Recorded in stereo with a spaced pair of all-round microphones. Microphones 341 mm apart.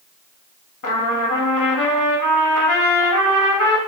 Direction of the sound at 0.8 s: 65° left (ahead or behind).